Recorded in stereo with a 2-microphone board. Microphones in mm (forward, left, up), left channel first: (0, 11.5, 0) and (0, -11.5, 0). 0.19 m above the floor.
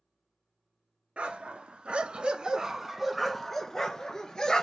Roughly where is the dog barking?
Right.